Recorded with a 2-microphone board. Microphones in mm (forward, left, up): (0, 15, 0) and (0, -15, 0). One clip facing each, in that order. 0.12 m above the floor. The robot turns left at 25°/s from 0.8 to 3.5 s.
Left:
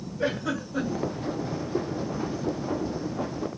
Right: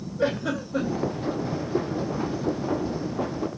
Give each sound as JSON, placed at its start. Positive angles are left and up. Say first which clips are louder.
{"t": 0.2, "sound": "a giggle", "louder": "right 3 dB", "side_deg": -35, "distance_m": 2.5}